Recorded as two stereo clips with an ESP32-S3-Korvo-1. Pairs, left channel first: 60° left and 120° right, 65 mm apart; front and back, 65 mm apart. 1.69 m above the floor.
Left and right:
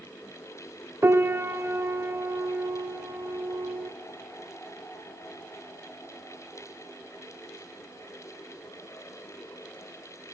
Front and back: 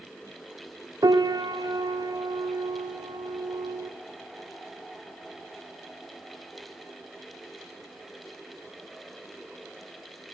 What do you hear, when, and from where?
1.0 s a piano: 175° right, 1.1 m